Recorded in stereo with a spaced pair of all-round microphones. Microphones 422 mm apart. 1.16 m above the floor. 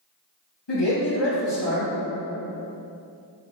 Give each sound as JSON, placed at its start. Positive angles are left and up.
{"t": 0.7, "sound": "a man speaking", "side_deg": 75, "distance_m": 1.8}